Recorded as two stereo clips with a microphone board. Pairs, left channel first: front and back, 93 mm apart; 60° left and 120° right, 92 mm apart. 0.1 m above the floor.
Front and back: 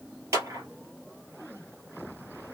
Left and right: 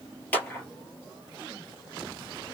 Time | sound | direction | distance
0.3 | a clap | 130° left | 1.9 m